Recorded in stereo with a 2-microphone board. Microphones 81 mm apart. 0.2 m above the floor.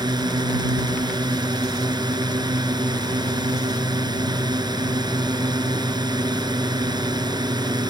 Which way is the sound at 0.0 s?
55° right (ahead or behind).